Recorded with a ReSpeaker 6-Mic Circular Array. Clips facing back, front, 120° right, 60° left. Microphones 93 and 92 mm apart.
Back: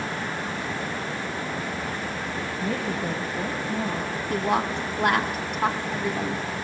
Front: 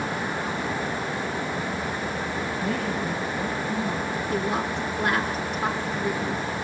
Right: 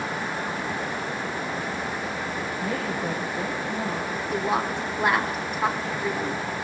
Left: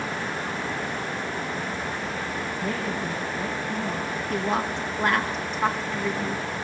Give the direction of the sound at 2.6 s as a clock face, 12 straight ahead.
6 o'clock.